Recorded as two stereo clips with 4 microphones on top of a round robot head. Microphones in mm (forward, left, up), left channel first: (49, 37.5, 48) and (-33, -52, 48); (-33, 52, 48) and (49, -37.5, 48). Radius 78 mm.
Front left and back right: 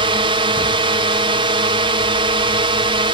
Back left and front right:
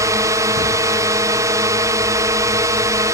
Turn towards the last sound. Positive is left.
turn(degrees=-105)